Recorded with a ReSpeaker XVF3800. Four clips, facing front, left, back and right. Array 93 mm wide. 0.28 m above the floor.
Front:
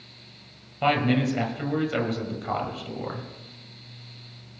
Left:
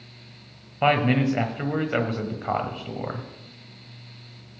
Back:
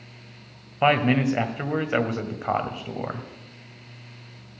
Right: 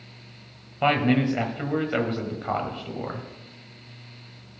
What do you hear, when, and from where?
0.8 s a man speaking: 160° left, 1.3 m